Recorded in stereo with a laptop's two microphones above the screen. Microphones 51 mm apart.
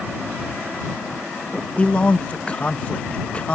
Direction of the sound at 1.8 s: 25° left (ahead or behind).